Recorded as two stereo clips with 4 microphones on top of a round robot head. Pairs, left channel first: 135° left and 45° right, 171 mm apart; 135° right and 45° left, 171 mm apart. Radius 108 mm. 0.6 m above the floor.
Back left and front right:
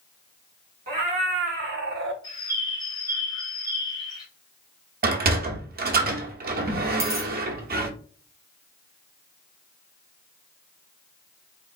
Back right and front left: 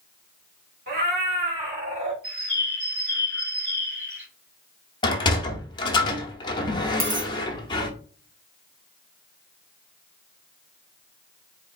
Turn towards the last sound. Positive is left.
turn(degrees=20)